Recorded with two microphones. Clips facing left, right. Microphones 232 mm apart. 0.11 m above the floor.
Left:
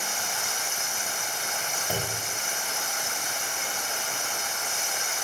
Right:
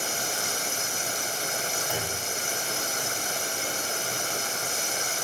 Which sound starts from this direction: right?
Running water, at 0.0 s.